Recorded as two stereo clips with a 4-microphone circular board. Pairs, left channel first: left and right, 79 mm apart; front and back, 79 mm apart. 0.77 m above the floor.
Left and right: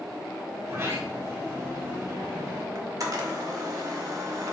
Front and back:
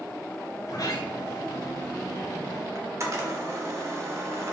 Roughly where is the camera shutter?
Behind right.